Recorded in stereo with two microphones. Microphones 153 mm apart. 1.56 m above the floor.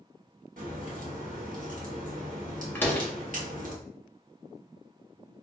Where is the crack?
60° right (ahead or behind), 1.0 m.